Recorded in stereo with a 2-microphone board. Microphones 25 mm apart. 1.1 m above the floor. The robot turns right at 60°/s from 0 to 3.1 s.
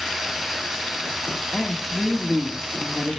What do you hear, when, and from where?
1.5 s a woman speaking: 150° left, 1.3 m; by 3.2 s 115° right, 1.3 m